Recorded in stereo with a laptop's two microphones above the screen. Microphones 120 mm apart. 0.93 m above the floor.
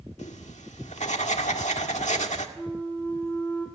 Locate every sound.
0.2 s writing: 75° left (ahead or behind), 1.8 m
2.6 s a flute: 15° left (ahead or behind), 1.4 m